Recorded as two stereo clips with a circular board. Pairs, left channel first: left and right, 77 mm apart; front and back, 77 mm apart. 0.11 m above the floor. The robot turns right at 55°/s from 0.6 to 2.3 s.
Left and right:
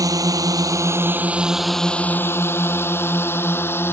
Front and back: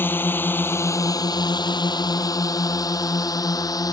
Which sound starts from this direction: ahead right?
A drone, at 0.0 s.